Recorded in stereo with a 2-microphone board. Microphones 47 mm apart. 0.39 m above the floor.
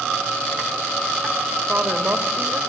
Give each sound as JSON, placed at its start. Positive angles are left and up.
{"t": 1.7, "sound": "a woman speaking", "side_deg": -40, "distance_m": 1.6}